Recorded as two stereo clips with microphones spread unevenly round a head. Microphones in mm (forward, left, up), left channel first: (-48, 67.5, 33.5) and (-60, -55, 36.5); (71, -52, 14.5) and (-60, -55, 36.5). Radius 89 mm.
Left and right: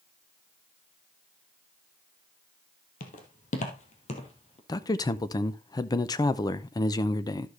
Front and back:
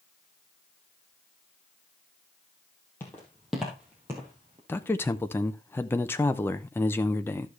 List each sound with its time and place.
3.0 s footsteps: 85° left, 1.9 m; by 4.6 s 120° left, 2 m
4.7 s a man speaking: 50° left, 0.5 m